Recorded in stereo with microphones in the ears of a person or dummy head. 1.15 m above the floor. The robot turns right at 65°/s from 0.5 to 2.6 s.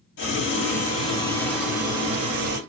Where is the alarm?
No alarm in this recording.